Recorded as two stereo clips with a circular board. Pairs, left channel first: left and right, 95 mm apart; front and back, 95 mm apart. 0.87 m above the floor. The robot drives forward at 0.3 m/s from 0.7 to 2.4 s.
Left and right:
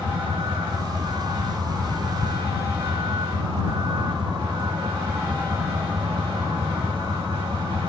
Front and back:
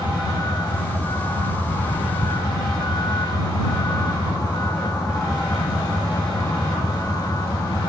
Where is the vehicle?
50° right.